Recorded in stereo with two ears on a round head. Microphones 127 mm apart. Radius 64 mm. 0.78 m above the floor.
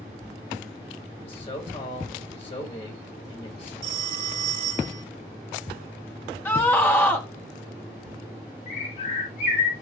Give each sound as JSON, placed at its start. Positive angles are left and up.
{"t": 1.2, "sound": "a man speaking", "side_deg": 40, "distance_m": 4.0}
{"t": 3.8, "sound": "a phone ringing", "side_deg": -40, "distance_m": 2.0}
{"t": 6.5, "sound": "a scream", "side_deg": 15, "distance_m": 1.3}
{"t": 8.7, "sound": "a bird", "side_deg": 55, "distance_m": 6.5}